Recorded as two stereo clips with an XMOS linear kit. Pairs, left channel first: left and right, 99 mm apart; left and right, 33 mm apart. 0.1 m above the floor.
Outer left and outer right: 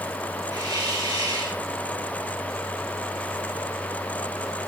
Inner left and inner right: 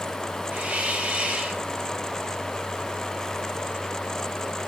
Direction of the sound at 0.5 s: 50° right (ahead or behind).